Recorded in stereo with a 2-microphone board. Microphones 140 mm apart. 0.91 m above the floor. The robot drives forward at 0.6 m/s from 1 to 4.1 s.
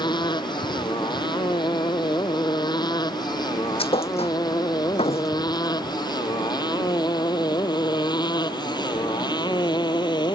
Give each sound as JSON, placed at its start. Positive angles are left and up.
{"t": 0.0, "sound": "a motorcycle", "side_deg": 30}
{"t": 3.8, "sound": "a thud", "side_deg": 45}